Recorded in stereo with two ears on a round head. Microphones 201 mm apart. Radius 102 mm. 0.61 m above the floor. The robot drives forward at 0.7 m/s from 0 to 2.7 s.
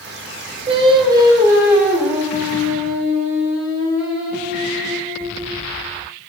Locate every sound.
0.7 s singing: 25° right (ahead or behind), 0.5 m; by 5.7 s 10° right (ahead or behind), 1.7 m